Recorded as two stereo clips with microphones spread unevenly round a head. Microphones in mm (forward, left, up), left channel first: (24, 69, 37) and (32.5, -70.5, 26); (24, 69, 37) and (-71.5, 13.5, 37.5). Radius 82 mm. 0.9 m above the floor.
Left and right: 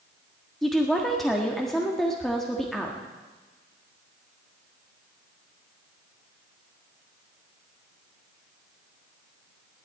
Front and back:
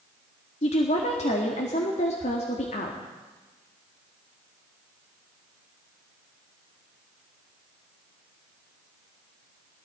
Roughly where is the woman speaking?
Ahead.